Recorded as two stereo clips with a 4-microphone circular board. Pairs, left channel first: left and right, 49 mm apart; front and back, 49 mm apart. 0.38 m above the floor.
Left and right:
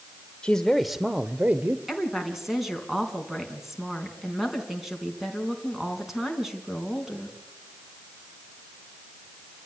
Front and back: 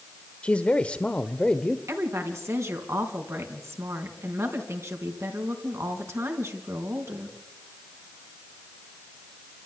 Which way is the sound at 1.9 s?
175° right.